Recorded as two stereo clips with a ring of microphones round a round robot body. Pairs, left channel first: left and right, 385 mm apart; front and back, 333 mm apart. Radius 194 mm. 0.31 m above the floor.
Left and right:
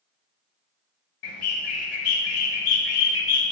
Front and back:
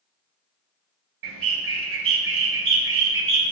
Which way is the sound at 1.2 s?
135° left.